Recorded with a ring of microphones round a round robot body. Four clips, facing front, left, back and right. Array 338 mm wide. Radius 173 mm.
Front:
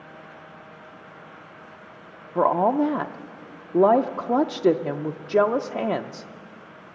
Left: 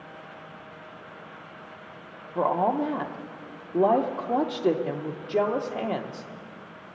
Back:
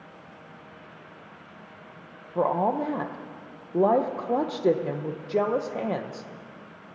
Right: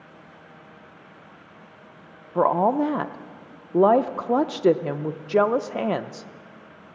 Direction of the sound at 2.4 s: 55° right.